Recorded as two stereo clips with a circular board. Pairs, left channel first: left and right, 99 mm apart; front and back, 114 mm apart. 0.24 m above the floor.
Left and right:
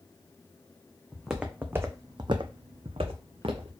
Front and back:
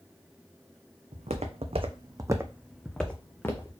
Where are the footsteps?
Straight behind, 0.8 m; by 3.7 s 65° right, 1.0 m.